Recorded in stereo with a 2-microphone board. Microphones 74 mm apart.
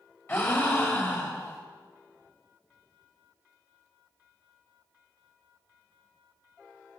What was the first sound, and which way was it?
A gasp, 35° left (ahead or behind).